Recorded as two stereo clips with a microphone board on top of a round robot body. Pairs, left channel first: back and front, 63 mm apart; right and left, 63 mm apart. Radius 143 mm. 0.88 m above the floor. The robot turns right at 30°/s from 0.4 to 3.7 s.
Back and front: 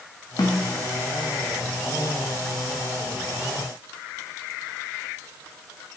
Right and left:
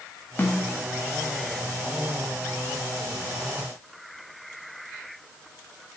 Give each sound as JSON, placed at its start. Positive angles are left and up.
{"t": 0.4, "sound": "a snare drum", "azimuth_deg": -150, "distance_m": 0.5}